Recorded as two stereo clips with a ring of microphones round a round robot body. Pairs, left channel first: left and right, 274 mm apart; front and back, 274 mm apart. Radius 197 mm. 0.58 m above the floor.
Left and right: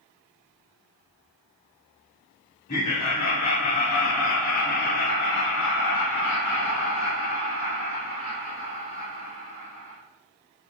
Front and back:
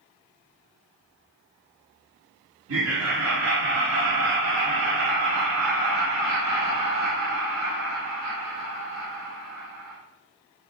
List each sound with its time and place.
2.7 s laughter: 155° left, 1.9 m; by 10.0 s 145° left, 5.5 m